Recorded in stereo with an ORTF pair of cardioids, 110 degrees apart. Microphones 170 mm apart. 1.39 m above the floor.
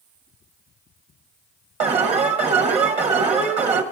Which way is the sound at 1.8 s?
40° right.